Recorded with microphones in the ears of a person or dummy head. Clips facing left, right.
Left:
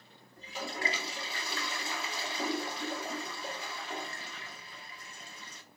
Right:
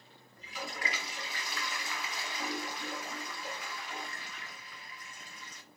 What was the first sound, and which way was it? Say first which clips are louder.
A toilet flushing: left 3 dB; 25° left (ahead or behind).